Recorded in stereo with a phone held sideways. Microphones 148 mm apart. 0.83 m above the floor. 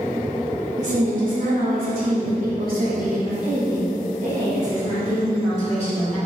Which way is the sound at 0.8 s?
55° right (ahead or behind).